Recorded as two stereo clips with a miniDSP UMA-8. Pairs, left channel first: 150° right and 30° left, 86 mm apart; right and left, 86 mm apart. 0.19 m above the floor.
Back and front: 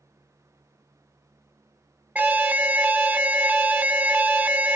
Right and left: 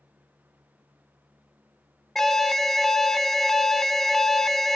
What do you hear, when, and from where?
2.1 s an alarm: 10° right, 0.8 m